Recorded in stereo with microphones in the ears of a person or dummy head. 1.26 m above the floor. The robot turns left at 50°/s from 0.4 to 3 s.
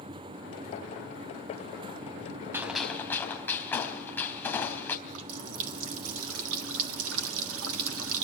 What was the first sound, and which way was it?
A gunshot, 10° right (ahead or behind).